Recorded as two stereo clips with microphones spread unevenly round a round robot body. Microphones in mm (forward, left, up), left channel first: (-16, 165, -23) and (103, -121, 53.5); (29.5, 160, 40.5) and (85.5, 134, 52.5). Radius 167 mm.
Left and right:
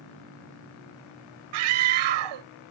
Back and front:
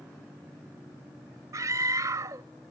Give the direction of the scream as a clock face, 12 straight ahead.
3 o'clock.